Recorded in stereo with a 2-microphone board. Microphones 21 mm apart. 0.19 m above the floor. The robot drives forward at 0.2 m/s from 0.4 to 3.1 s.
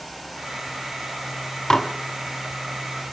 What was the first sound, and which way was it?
Dishes clattering, 30° left (ahead or behind).